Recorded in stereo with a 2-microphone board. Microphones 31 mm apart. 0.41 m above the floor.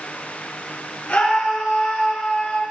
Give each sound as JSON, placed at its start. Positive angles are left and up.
{"t": 1.1, "sound": "a scream", "side_deg": 75, "distance_m": 6.5}